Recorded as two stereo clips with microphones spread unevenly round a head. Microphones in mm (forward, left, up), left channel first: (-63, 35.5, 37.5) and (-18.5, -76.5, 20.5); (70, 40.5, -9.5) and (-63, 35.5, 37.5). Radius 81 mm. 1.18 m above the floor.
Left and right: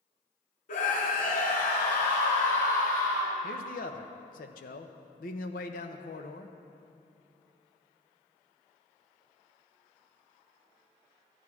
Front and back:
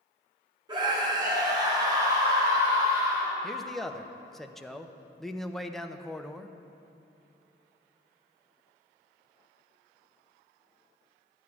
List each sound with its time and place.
0.7 s a scream: 125° left, 2.5 m; by 3.4 s 115° left, 4 m
3.4 s a man speaking: 85° left, 0.8 m